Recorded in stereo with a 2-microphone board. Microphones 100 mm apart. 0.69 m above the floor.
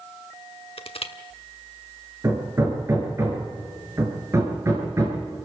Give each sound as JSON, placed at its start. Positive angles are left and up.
{"t": 0.8, "sound": "crushing", "side_deg": 70, "distance_m": 1.1}
{"t": 2.2, "sound": "hammering", "side_deg": -30, "distance_m": 5.5}